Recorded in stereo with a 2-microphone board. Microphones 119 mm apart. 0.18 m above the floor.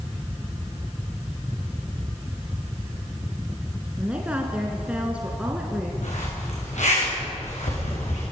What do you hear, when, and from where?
4.0 s a woman speaking: 10° right (ahead or behind), 2.5 m
6.0 s a zipper: 80° left, 9.5 m